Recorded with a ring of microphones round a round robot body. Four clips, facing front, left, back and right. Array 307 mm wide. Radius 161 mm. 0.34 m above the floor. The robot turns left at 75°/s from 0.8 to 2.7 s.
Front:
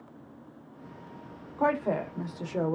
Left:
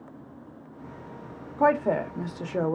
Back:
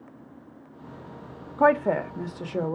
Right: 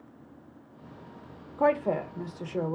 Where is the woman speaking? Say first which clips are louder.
Left 3 dB, back 6 dB; 175° left, 1.0 m; by 2.8 s 90° left, 1.0 m.